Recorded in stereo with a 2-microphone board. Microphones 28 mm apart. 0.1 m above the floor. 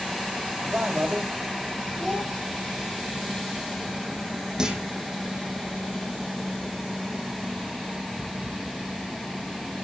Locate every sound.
0.6 s a man speaking: 70° right (ahead or behind), 4.5 m
2.0 s a child speaking: 10° right (ahead or behind), 10 m
4.6 s a clunk: 30° right (ahead or behind), 3.5 m